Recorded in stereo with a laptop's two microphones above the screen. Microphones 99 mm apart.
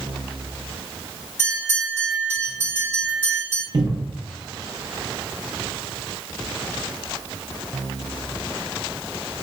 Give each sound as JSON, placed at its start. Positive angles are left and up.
{"t": 1.4, "sound": "a bell", "side_deg": 20, "distance_m": 1.9}
{"t": 3.7, "sound": "a cupboard door", "side_deg": -50, "distance_m": 0.6}